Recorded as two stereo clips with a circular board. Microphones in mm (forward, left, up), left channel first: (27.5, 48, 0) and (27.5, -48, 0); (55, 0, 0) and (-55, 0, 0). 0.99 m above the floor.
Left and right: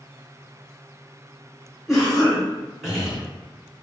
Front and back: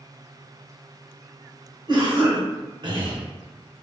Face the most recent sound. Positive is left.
turn(degrees=-175)